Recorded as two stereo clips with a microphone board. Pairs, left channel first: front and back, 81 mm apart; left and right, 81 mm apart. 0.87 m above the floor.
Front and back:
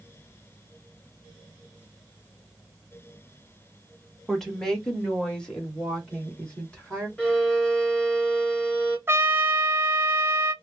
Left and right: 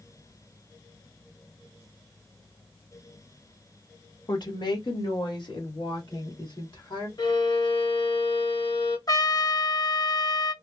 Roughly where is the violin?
Left.